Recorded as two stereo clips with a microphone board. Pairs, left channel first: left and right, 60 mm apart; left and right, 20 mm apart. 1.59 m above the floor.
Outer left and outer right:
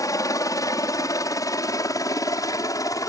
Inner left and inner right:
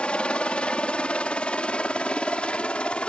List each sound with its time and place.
0.0 s a helicopter: 70° left (ahead or behind)